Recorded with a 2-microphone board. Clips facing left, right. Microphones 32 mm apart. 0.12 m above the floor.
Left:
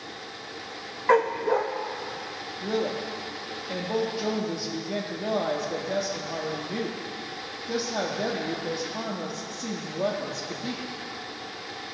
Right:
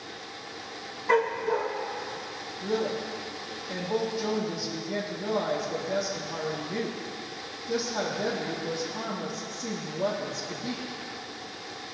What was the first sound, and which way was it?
A dog barking, 60° left (ahead or behind).